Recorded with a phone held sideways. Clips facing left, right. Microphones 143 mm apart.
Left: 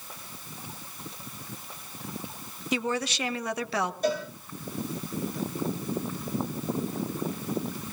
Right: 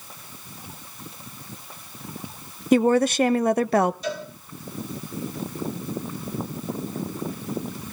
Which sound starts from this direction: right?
A woman speaking, at 2.7 s.